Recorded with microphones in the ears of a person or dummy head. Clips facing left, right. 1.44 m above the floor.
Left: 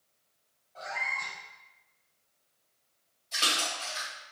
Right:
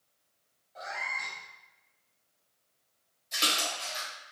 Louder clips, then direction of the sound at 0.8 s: Left 1 dB; 15° right (ahead or behind).